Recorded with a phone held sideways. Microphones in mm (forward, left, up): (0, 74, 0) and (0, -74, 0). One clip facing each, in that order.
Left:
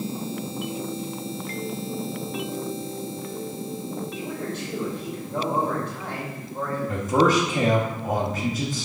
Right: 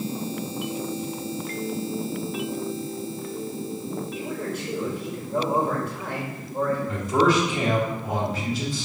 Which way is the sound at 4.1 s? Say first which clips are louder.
Right 1 dB; 10° right (ahead or behind).